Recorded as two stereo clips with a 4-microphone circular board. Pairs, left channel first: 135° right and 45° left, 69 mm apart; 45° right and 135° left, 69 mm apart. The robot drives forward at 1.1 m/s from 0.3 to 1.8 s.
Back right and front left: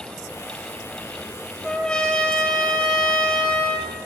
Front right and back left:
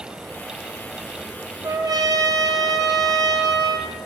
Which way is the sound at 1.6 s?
150° left.